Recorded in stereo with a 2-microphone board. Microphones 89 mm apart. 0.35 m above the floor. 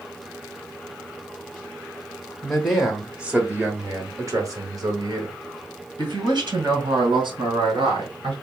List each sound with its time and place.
2.4 s a man speaking: 10° left (ahead or behind), 1.2 m; by 8.3 s 70° right (ahead or behind), 3 m